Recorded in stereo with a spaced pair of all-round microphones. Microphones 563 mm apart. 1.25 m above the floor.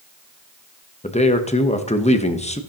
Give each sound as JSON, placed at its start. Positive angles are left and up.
{"t": 1.0, "sound": "a man speaking", "side_deg": 10, "distance_m": 0.9}